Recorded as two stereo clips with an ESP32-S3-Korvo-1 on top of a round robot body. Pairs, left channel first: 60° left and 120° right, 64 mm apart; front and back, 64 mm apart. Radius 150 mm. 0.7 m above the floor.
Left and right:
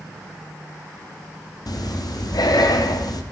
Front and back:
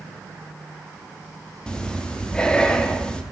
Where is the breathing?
75° left, 0.9 m.